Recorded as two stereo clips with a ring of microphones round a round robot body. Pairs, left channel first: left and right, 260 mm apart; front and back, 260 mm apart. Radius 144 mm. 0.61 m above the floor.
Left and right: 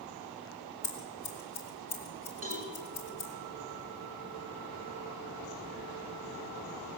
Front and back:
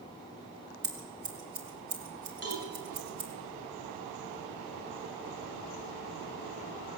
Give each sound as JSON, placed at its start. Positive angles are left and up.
{"t": 0.8, "sound": "scissors", "azimuth_deg": 150, "distance_m": 2.5}
{"t": 2.4, "sound": "a cowbell", "azimuth_deg": -155, "distance_m": 5.0}